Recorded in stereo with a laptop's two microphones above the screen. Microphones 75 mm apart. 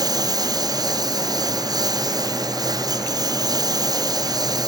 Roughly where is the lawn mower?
Right.